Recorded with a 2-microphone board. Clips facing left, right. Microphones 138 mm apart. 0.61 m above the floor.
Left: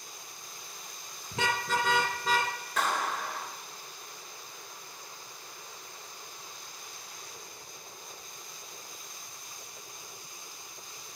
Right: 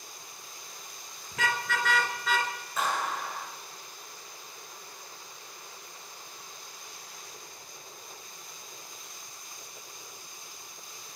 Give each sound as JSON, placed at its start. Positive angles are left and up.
{"t": 1.3, "sound": "a car horn", "side_deg": 30, "distance_m": 2.5}
{"t": 2.8, "sound": "a clap", "side_deg": 80, "distance_m": 9.5}